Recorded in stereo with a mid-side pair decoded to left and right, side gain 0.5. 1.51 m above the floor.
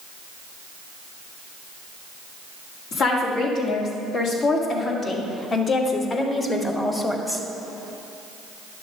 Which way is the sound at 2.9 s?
70° left.